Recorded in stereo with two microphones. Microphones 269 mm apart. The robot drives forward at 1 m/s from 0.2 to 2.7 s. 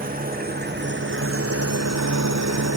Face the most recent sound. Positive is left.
turn(degrees=-70)  # may be behind; listen again after turning